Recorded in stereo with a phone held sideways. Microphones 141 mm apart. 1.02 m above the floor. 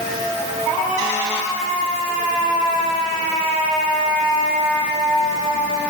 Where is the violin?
I don't hear a violin.